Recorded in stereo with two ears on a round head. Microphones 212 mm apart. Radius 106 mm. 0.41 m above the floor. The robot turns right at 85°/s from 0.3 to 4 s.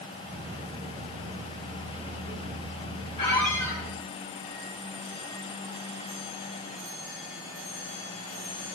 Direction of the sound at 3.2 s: 155° left.